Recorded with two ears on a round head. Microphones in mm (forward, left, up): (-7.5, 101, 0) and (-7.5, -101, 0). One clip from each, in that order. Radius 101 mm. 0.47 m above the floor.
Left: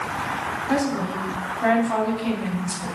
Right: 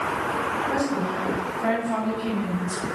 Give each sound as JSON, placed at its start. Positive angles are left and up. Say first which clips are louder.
{"t": 0.7, "sound": "a woman speaking", "louder": "left 1 dB", "side_deg": 40, "distance_m": 3.0}